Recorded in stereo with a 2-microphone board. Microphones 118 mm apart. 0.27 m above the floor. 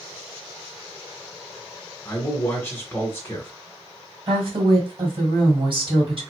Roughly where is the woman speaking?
Right.